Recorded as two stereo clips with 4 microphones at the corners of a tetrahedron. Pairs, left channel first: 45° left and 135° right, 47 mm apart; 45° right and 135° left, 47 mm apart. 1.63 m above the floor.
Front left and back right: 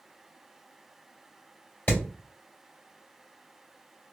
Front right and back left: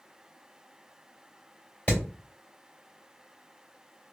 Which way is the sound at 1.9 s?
10° left.